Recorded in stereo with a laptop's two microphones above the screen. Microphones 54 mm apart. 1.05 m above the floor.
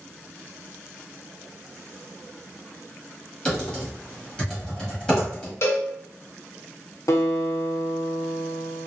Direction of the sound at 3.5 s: 15° left (ahead or behind).